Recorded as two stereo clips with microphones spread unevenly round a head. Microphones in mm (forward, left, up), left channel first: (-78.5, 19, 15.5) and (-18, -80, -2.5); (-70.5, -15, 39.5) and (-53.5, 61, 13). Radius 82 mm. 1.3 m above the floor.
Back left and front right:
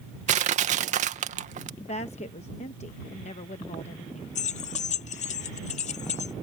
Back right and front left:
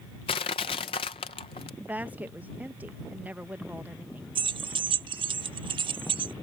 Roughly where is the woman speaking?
Behind left.